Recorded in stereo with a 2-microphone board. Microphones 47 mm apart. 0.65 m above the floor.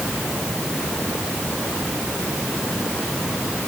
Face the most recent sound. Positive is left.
No sound to turn to.